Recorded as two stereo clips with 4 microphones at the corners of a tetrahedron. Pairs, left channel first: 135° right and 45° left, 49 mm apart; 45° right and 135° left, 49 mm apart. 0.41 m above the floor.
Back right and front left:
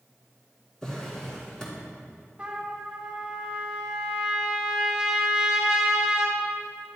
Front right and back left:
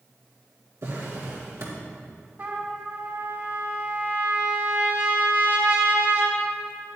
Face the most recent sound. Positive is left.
turn(degrees=110)